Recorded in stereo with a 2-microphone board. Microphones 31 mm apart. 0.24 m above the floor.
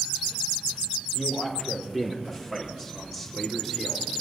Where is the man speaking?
5° right (ahead or behind), 6.5 m; by 4.1 s 5° left (ahead or behind), 4 m.